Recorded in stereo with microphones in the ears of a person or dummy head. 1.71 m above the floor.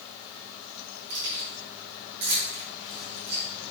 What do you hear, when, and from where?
1.1 s keys jangling: 55° right (ahead or behind), 3.5 m